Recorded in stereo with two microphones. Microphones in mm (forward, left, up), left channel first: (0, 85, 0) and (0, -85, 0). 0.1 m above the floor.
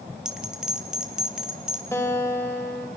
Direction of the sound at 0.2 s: 5° right (ahead or behind).